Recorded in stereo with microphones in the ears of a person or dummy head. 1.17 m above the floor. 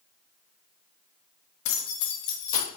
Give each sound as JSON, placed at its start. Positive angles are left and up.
{"t": 1.6, "sound": "keys jangling", "side_deg": 65, "distance_m": 0.7}